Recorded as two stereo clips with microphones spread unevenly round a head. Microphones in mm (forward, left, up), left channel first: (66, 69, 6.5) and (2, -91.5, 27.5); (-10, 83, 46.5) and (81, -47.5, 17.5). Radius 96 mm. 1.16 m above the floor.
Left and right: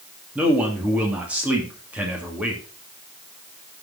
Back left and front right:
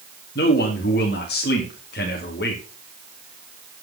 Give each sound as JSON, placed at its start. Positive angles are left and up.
{"t": 0.3, "sound": "a man speaking", "azimuth_deg": 165, "distance_m": 2.0}